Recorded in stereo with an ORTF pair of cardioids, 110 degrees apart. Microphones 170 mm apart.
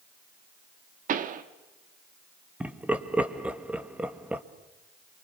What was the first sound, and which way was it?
A pop, 50° right.